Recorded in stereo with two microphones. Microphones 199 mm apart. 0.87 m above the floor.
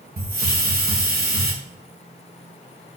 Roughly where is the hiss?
Right.